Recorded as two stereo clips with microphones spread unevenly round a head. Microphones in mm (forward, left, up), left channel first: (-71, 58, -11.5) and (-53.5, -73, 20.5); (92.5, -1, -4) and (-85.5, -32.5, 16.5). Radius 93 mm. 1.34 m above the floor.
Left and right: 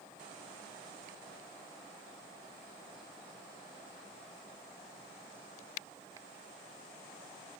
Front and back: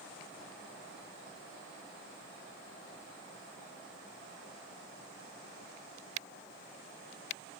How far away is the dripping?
No dripping in this recording.